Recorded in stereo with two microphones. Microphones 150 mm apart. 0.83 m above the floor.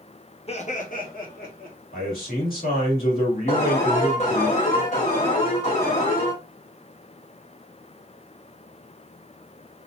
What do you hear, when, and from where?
0.5 s laughter: 40° left (ahead or behind), 1.0 m; by 1.8 s 75° left (ahead or behind), 1.7 m
1.9 s a man speaking: 65° left (ahead or behind), 2.5 m
3.5 s an alarm: 50° left (ahead or behind), 2 m